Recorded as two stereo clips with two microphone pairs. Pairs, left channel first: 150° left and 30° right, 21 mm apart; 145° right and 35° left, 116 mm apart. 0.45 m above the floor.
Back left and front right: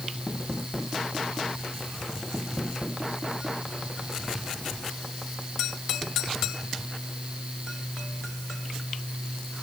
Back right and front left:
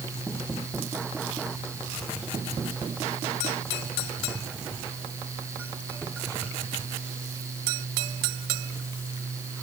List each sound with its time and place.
Only background noise.